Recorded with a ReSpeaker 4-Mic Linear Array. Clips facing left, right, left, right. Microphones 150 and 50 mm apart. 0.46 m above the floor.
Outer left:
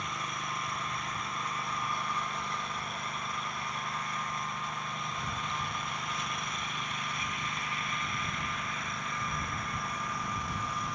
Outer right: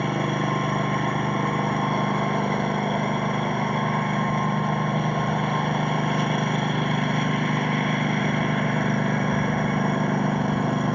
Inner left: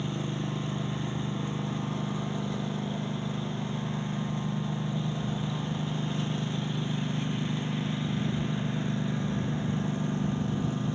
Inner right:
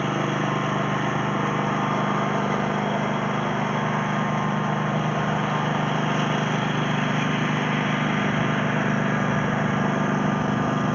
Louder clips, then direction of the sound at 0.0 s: Outer right 15 dB, inner right 10 dB; 60° right (ahead or behind).